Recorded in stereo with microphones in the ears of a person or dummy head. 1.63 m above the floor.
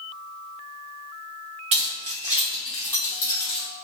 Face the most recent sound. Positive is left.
turn(degrees=25)  # may be behind; listen again after turning